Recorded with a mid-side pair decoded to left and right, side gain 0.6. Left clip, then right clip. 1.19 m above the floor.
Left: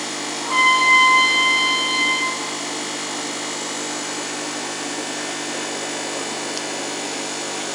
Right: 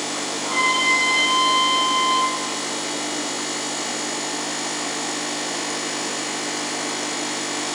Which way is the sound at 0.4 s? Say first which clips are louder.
Left 5 dB; 30° left.